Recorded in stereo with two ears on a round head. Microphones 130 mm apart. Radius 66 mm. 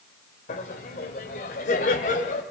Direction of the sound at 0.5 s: 55° left (ahead or behind).